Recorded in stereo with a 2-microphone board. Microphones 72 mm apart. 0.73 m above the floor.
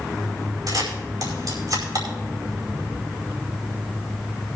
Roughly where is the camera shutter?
Right.